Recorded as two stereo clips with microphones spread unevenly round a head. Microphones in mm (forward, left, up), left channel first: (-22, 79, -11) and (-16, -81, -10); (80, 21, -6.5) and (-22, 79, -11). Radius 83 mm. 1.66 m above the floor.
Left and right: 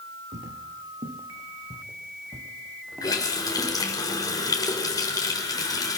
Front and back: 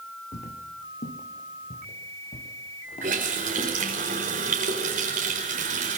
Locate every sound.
0.3 s footsteps: 45° right, 3.5 m; by 3.8 s straight ahead, 5.5 m
3.0 s a running tap: 160° left, 5 m